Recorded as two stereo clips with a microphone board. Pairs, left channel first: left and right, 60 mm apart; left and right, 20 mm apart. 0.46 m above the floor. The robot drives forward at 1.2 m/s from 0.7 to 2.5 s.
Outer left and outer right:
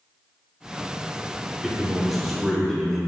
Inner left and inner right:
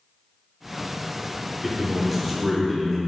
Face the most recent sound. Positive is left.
turn(degrees=0)  # may be behind; listen again after turning